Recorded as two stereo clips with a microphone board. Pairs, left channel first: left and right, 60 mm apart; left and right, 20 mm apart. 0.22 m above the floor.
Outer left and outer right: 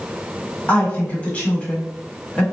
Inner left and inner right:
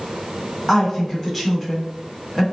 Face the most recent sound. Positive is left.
turn(degrees=25)  # may be behind; listen again after turning